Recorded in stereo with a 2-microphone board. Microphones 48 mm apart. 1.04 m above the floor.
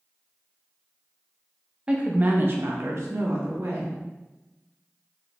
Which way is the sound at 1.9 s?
20° right (ahead or behind).